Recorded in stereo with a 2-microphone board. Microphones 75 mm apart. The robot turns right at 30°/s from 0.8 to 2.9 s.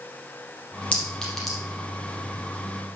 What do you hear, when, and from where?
0.9 s a clink: 20° left (ahead or behind), 4 m; by 1.6 s centre (ahead or behind), 4 m